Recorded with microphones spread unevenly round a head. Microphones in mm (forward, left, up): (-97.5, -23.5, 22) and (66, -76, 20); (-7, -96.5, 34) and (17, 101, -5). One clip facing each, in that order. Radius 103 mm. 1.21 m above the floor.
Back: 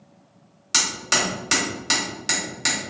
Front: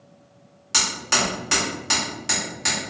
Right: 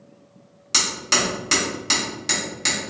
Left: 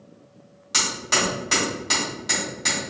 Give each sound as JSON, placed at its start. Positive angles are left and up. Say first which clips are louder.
{"t": 0.7, "sound": "hammering", "louder": "even, right 1 dB", "azimuth_deg": -150, "distance_m": 1.7}